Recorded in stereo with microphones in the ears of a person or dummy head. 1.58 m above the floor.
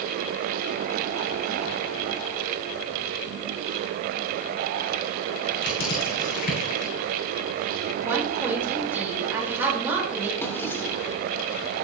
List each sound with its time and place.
5.6 s crushing: 60° left (ahead or behind), 6.5 m
8.0 s a woman speaking: 15° right (ahead or behind), 5 m
10.4 s a drawer: 10° left (ahead or behind), 2.5 m